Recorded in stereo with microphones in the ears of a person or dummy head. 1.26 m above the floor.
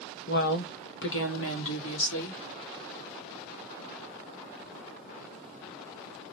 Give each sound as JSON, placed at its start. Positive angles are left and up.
{"t": 0.3, "sound": "a woman speaking", "side_deg": 45, "distance_m": 0.7}